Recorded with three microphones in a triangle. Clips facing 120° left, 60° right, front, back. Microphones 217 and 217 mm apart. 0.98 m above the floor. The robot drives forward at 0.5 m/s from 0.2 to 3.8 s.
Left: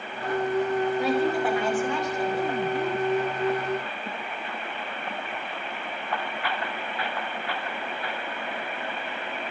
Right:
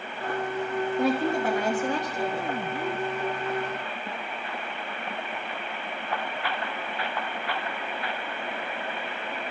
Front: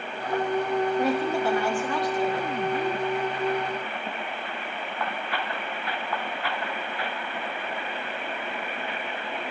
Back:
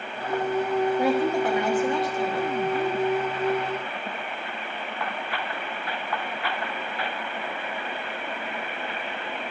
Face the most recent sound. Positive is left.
turn(degrees=-135)